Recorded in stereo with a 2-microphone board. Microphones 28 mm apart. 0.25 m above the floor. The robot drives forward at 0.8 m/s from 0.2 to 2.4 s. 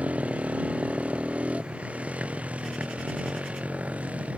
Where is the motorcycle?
55° right (ahead or behind).